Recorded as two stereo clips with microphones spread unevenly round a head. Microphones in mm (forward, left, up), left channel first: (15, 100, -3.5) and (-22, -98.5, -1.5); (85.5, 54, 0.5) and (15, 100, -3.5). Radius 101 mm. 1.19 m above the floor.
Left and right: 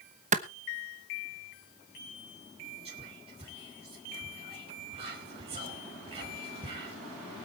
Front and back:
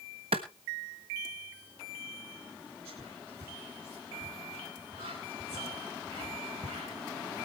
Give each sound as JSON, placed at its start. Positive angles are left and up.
{"t": 0.3, "sound": "a clap", "azimuth_deg": -155, "distance_m": 1.0}
{"t": 2.9, "sound": "whispering", "azimuth_deg": -165, "distance_m": 3.0}